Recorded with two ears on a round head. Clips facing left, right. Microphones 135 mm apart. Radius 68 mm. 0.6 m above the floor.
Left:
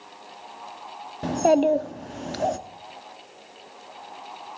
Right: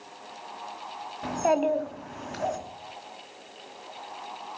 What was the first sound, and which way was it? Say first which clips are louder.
A child speaking: left 5 dB; 35° left (ahead or behind).